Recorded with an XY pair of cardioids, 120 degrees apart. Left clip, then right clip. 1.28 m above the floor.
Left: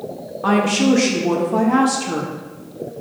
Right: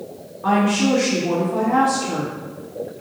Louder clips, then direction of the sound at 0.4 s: Left 2 dB; 45° left.